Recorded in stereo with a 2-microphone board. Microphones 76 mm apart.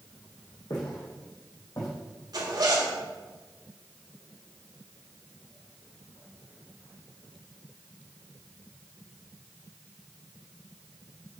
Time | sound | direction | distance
0.7 | footsteps | 70° left (ahead or behind) | 2.5 m
2.3 | a zipper | 65° right (ahead or behind) | 1.5 m